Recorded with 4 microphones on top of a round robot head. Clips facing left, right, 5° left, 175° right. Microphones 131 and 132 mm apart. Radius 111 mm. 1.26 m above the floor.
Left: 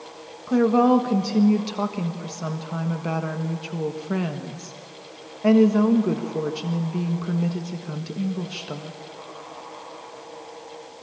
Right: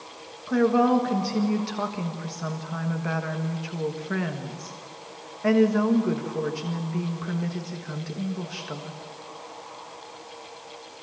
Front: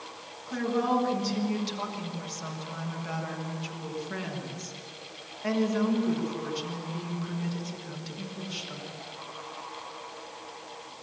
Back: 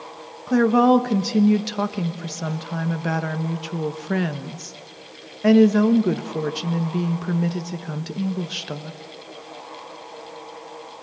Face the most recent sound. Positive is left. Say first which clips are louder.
# left 3 dB, back 12 dB
turn(degrees=165)